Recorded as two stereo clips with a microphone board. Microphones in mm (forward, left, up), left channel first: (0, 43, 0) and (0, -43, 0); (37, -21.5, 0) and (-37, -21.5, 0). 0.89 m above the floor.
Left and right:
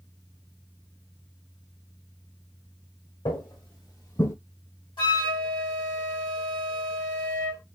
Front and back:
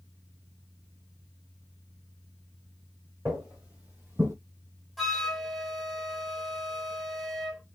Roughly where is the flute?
Left.